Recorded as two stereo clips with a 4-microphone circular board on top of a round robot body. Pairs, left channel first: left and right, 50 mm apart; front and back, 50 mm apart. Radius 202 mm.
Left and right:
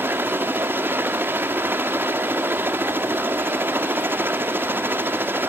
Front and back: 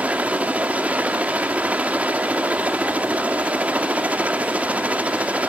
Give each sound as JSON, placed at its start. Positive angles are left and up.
{"t": 0.0, "sound": "a helicopter", "azimuth_deg": -120}